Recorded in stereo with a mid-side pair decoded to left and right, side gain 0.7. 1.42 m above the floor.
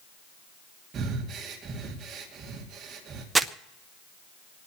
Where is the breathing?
35° right, 2.5 m.